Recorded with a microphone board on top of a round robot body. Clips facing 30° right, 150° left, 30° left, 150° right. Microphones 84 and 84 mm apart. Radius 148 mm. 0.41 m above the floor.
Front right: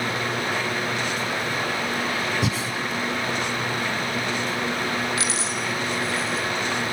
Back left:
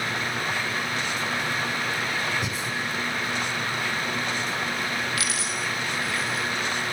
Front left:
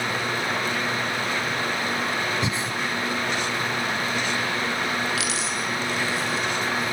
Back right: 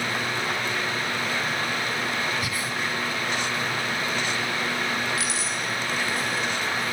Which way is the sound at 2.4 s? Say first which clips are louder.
Front right 5 dB, front left 3 dB; 35° right.